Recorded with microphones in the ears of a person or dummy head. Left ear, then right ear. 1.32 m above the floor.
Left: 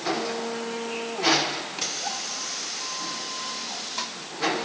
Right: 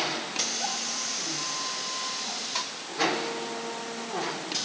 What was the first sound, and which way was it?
Only background noise.